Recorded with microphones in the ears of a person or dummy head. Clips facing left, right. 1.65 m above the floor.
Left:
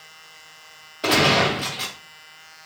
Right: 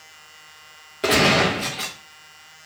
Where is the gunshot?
20° right (ahead or behind), 1.3 m.